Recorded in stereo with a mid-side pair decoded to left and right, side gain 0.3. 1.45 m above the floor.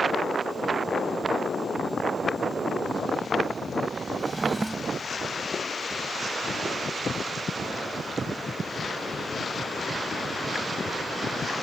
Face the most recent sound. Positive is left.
turn(degrees=-20)